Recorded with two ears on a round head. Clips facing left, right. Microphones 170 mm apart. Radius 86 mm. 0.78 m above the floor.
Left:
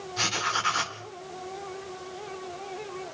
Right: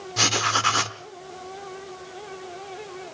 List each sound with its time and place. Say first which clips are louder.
0.2 s writing: right 7 dB; 65° right (ahead or behind), 1.2 m